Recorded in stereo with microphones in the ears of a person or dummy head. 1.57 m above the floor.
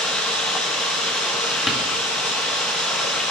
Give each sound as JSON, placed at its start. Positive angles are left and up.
{"t": 0.0, "sound": "running water", "side_deg": 0, "distance_m": 1.5}
{"t": 1.7, "sound": "a door slam", "side_deg": 0, "distance_m": 1.7}